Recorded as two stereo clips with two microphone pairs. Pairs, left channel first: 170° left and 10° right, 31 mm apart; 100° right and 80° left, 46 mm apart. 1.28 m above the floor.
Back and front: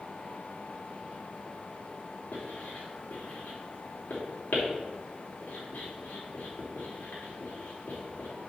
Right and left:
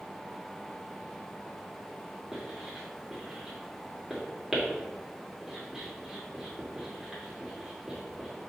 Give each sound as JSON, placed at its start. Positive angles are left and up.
{"t": 2.3, "sound": "writing", "azimuth_deg": 160, "distance_m": 3.0}